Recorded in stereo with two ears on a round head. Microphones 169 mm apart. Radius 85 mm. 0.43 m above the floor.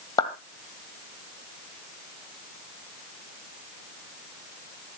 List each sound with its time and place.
0.2 s a clap: 20° left (ahead or behind), 2.0 m